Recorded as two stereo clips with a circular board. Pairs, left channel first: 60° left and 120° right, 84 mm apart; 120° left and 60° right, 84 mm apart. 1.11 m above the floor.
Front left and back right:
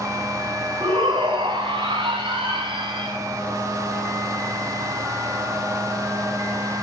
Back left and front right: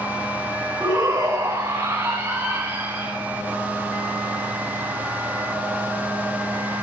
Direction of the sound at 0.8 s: 115° right.